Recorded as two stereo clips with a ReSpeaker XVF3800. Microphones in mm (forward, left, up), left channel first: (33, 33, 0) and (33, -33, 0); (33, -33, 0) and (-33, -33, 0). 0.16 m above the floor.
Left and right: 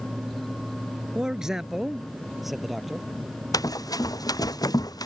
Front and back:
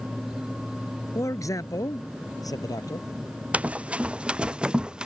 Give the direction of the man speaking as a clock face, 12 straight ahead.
12 o'clock.